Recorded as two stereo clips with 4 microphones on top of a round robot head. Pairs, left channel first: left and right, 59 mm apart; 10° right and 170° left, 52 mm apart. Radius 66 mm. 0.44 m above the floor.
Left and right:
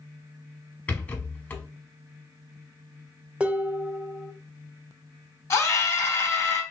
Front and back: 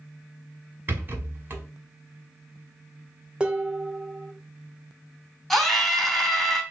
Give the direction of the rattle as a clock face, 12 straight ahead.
7 o'clock.